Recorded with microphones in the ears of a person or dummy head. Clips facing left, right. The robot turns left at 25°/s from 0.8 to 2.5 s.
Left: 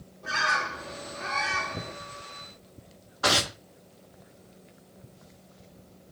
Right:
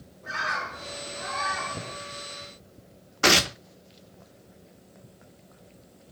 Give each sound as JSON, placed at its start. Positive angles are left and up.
{"t": 0.2, "sound": "a bird", "side_deg": 55, "distance_m": 1.8}
{"t": 3.2, "sound": "tearing paper", "side_deg": -35, "distance_m": 0.5}